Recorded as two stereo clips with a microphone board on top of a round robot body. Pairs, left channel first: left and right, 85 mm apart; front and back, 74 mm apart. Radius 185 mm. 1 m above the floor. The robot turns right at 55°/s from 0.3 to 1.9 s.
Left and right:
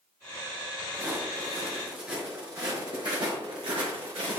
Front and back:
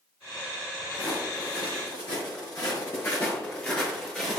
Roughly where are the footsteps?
Ahead right.